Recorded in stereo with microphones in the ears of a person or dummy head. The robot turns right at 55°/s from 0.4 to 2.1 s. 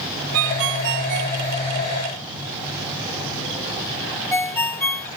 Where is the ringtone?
80° right; by 5.1 s 10° left (ahead or behind).